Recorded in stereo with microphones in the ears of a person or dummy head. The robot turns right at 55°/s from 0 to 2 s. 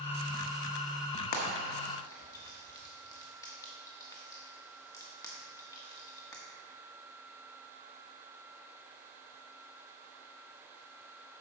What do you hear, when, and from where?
1.3 s frying: 50° left (ahead or behind), 1.2 m; by 6.4 s 15° left (ahead or behind), 1.2 m